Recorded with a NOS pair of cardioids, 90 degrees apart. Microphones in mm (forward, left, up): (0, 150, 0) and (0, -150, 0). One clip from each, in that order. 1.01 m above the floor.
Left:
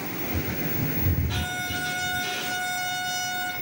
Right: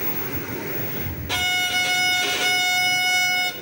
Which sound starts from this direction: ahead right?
A violin, at 1.3 s.